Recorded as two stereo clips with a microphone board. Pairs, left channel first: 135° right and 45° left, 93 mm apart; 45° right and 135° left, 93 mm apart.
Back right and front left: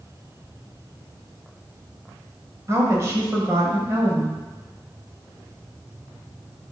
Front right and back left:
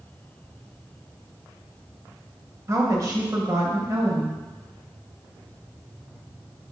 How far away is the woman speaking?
About 1.5 m.